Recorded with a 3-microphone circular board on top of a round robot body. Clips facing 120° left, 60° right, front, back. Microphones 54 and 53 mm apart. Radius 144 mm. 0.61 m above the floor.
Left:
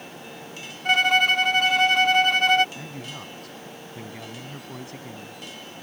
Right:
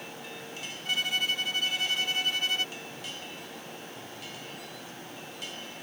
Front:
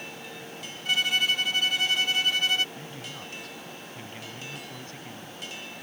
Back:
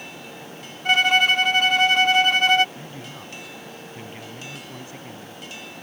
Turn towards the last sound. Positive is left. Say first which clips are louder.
# left 4 dB, back 2 dB
turn(degrees=100)